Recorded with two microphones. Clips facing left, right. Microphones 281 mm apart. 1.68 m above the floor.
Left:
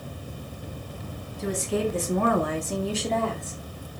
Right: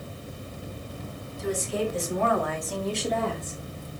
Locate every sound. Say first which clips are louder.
1.4 s a woman speaking: left 2 dB; 70° left (ahead or behind), 1.7 m; by 3.6 s 40° right (ahead or behind), 1.0 m